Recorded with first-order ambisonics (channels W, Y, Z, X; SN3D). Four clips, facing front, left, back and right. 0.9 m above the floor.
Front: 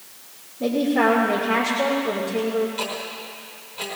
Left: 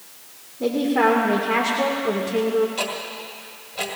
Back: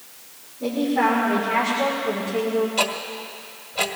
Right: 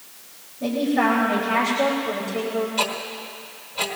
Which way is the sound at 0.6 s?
65° left.